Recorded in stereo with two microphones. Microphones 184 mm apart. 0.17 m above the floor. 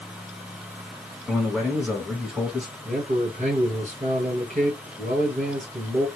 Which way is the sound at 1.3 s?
5° right (ahead or behind).